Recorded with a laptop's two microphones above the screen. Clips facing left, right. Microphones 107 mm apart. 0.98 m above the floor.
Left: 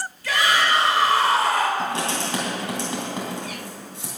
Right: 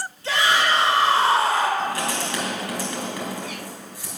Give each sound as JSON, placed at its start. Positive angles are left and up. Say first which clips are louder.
{"t": 0.2, "sound": "a shout", "louder": "even", "side_deg": -30, "distance_m": 3.0}
{"t": 1.8, "sound": "writing", "louder": "even", "side_deg": 25, "distance_m": 3.0}